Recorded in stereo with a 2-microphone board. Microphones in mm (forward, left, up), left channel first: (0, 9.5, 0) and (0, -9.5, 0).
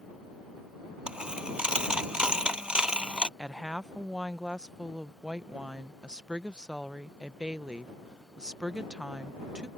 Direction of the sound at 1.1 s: 65° right (ahead or behind).